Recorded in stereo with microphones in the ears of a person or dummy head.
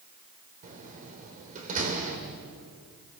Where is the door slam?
40° right (ahead or behind), 2.5 m.